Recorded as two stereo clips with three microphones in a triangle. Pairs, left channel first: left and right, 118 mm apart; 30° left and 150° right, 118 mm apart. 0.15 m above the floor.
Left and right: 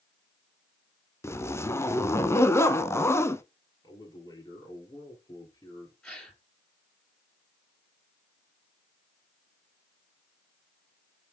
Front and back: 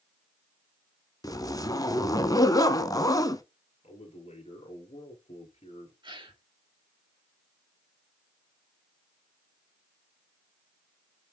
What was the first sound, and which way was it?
A zipper, 45° left.